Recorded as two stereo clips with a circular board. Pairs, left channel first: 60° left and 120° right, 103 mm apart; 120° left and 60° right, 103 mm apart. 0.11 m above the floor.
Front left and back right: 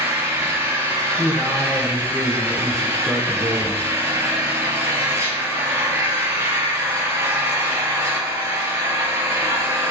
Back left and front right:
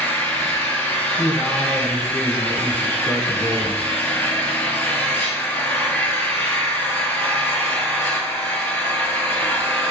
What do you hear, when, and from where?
0.0 s an engine running: straight behind, 1.6 m
1.2 s a man speaking: 145° left, 1.6 m